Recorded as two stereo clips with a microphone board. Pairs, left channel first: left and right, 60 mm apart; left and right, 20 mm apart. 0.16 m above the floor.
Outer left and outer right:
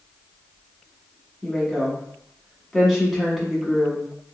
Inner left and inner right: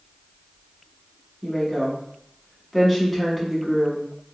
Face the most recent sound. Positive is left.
turn(degrees=-5)  # may be behind; listen again after turning